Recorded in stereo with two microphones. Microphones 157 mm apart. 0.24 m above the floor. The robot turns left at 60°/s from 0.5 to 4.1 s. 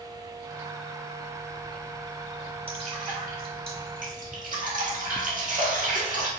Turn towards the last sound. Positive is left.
turn(degrees=-55)  # may be behind; listen again after turning